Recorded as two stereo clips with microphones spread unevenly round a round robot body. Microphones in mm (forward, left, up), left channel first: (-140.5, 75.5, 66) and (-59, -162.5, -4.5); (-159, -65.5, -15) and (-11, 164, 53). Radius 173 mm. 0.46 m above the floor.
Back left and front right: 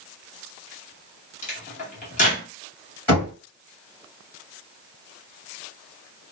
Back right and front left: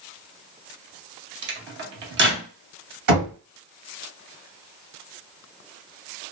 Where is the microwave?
50° left, 0.6 m.